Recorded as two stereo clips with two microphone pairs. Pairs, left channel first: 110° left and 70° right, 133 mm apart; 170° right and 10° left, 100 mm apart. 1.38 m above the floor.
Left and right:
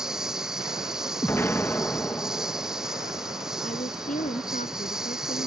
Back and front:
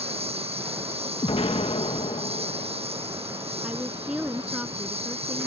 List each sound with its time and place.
0.0 s a lawn mower: 15° left
1.2 s an explosion: straight behind
3.6 s a woman speaking: 90° left